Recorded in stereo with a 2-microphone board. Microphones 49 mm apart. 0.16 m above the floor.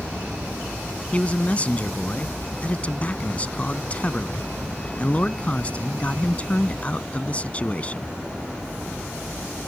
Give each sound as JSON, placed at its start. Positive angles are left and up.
{"t": 1.1, "sound": "a man speaking", "side_deg": 30}